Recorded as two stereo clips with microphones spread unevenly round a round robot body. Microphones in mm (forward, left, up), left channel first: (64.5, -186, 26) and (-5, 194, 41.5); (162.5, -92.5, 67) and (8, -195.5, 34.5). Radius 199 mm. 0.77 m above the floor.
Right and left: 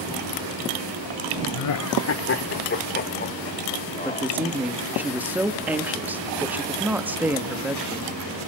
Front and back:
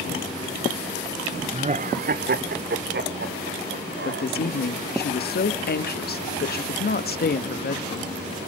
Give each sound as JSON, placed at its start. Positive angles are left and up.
{"t": 1.5, "sound": "laughter", "azimuth_deg": -100, "distance_m": 0.8}
{"t": 4.0, "sound": "a woman speaking", "azimuth_deg": 15, "distance_m": 1.5}